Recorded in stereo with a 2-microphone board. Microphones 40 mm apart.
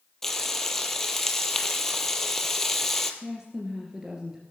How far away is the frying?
About 1.4 m.